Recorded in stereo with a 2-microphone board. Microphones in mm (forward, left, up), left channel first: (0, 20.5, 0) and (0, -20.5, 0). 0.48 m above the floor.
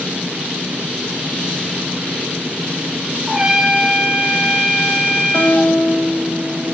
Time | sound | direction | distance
3.3 | a trumpet | 15° right (ahead or behind) | 4 m
5.3 | a guitar | 30° left (ahead or behind) | 2.5 m